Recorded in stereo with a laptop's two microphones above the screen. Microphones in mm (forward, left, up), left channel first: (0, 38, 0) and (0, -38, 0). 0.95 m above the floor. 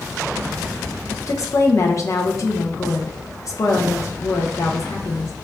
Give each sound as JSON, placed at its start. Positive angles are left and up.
{"t": 1.3, "sound": "a woman speaking", "side_deg": 45, "distance_m": 0.7}